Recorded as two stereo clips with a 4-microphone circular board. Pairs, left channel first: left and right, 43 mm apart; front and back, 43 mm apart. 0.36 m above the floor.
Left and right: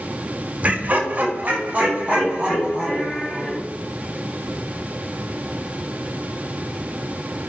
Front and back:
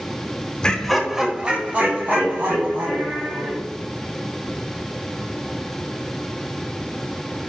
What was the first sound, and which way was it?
Laughter, 60° right.